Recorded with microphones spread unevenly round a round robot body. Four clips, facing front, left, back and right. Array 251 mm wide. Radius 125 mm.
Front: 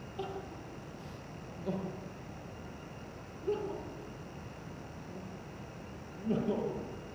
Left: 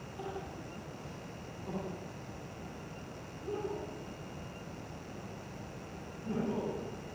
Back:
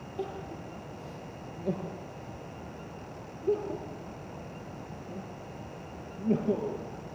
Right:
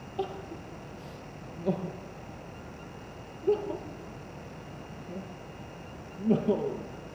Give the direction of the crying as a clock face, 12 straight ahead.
4 o'clock.